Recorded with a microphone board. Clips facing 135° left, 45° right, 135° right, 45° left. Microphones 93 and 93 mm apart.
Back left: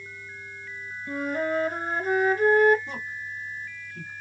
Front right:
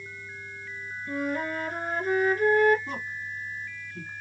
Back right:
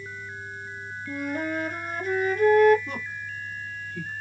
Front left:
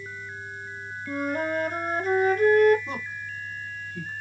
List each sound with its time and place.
1.1 s a flute: 75° left, 0.8 m
2.9 s a woman speaking: 10° right, 2 m